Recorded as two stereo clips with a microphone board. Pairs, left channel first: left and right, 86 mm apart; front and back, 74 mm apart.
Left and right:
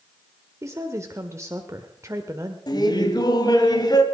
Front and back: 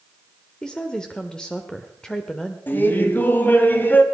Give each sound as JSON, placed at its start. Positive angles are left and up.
{"t": 0.6, "sound": "a woman speaking", "azimuth_deg": -75, "distance_m": 1.1}
{"t": 2.7, "sound": "laughter", "azimuth_deg": 60, "distance_m": 2.0}